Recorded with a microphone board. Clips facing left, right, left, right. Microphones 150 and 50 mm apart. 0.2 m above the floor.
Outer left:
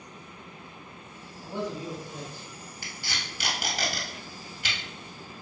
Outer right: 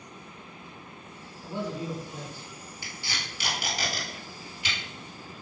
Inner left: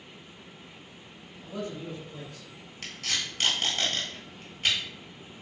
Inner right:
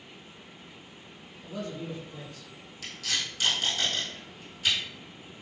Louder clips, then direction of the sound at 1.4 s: Even, even; 20° left (ahead or behind).